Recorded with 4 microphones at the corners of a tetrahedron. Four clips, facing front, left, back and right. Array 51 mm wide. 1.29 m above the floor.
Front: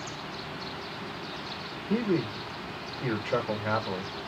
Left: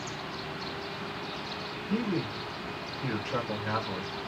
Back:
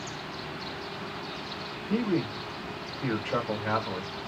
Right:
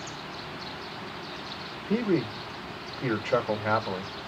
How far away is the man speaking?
About 1.1 m.